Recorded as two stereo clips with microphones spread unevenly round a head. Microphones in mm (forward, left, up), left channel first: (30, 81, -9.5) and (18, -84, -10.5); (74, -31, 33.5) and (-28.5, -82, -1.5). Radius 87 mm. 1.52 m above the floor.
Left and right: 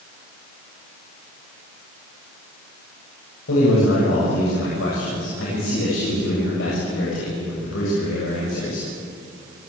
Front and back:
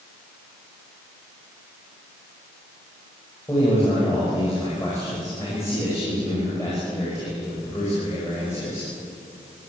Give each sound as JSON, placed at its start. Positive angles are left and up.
{"t": 3.5, "sound": "a man speaking", "azimuth_deg": 100, "distance_m": 7.5}